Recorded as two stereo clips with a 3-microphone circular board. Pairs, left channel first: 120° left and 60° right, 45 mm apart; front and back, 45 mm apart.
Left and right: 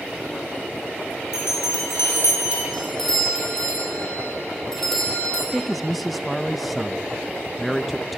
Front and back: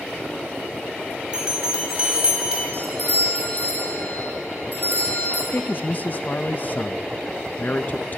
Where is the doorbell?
40° left, 5 m.